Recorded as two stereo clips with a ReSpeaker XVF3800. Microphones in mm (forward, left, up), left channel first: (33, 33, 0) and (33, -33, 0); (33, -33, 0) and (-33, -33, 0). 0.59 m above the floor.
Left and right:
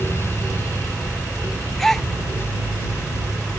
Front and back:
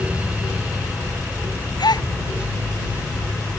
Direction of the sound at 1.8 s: 5° left.